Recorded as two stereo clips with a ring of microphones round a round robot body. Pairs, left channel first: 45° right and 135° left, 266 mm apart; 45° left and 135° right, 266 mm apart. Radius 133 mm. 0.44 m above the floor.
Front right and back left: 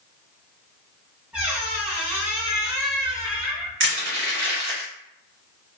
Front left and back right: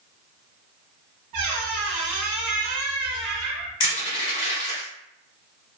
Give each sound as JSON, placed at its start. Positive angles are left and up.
{"t": 1.3, "sound": "a squeak", "azimuth_deg": -140, "distance_m": 0.8}
{"t": 3.8, "sound": "crushing", "azimuth_deg": 110, "distance_m": 1.6}